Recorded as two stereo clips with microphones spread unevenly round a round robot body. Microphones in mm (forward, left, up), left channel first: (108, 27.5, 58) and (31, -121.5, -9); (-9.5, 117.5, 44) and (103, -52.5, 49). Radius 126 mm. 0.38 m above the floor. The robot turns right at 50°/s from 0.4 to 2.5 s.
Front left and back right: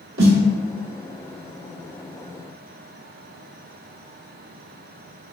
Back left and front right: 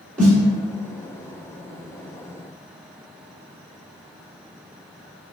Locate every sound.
0.2 s a snare drum: 150° right, 0.9 m